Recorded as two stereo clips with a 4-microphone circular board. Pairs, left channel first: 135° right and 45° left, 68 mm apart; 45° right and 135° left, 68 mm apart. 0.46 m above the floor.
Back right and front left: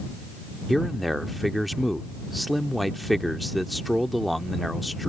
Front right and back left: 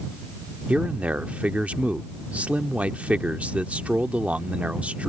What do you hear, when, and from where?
0.7 s a man speaking: 135° left